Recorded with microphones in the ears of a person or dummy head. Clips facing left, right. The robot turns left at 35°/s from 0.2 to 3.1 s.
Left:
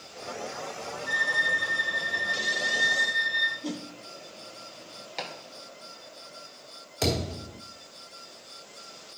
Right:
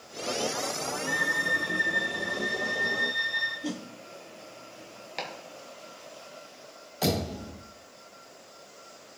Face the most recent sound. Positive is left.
turn(degrees=30)  # may be behind; listen again after turning